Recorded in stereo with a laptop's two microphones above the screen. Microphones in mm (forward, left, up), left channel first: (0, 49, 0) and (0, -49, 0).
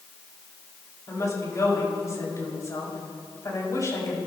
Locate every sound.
1.1 s a woman speaking: 35° left (ahead or behind), 5.5 m